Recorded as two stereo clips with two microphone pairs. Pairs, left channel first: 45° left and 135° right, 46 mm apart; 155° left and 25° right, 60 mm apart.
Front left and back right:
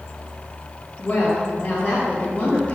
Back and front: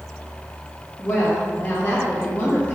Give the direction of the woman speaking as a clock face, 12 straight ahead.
9 o'clock.